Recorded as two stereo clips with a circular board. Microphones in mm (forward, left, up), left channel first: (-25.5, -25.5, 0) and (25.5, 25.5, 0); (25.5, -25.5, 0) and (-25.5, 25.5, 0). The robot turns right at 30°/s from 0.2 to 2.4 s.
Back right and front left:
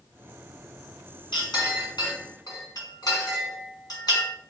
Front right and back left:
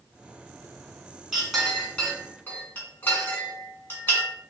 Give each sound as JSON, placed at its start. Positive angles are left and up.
{"t": 1.3, "sound": "a clink", "azimuth_deg": -140, "distance_m": 2.5}